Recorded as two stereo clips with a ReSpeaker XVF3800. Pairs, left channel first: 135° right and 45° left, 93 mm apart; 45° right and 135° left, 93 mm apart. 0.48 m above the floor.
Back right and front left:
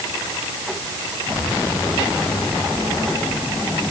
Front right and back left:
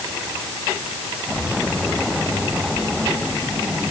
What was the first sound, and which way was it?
Only background noise.